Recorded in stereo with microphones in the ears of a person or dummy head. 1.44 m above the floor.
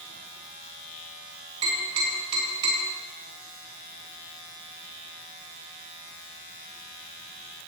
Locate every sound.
1.6 s tapping: 25° right (ahead or behind), 3.5 m